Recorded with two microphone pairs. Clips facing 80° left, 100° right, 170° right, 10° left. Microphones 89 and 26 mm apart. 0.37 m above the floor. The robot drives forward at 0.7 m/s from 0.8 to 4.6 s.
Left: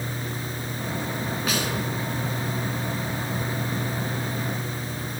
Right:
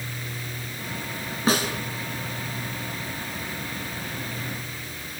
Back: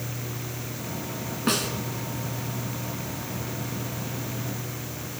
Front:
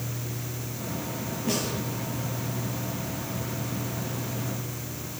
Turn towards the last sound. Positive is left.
turn(degrees=-165)